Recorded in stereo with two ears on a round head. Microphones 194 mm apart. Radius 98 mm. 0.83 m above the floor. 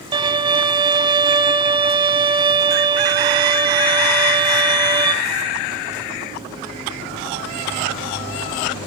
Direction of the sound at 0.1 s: 20° right (ahead or behind).